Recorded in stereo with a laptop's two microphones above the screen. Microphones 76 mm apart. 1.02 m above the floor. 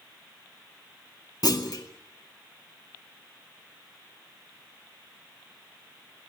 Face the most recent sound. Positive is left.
turn(degrees=60)  # may be behind; listen again after turning